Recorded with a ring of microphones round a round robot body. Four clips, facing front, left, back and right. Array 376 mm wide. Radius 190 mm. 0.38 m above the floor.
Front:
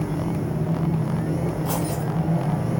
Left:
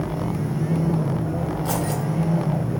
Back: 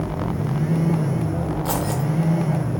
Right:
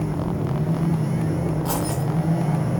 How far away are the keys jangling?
About 0.9 m.